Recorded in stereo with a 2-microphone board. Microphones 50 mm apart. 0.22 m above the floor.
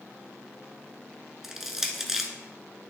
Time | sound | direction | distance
1.4 | crushing | 5° right (ahead or behind) | 1.0 m